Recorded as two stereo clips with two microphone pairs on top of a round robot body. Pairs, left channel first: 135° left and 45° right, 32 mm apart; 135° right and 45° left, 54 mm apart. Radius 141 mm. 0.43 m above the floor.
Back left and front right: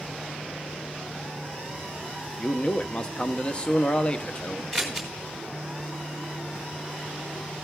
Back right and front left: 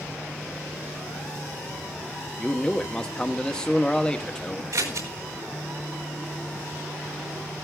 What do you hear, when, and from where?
2.4 s a man speaking: 160° left, 0.9 m
4.7 s scissors: 55° left, 4 m